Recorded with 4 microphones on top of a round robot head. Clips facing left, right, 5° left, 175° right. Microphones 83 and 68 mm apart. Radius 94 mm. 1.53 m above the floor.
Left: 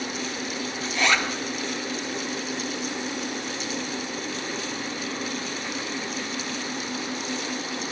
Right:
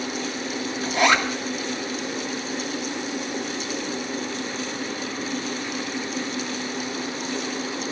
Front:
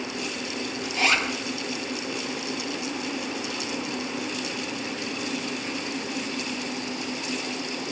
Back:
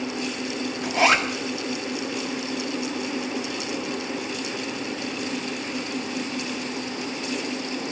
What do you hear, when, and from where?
0.8 s a zipper: 145° right, 1.0 m